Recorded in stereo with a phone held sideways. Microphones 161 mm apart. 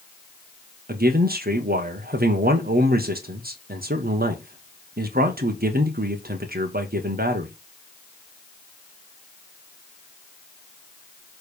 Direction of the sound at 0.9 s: 70° right (ahead or behind).